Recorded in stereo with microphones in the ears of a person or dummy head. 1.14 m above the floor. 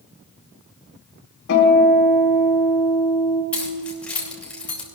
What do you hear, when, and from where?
1.5 s a guitar: 70° left (ahead or behind), 4 m
3.5 s keys jangling: 5° left (ahead or behind), 3 m